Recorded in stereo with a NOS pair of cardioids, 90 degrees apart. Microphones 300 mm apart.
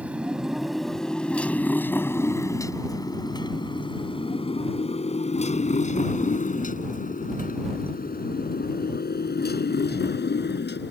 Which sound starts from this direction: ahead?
A motorcycle, at 0.0 s.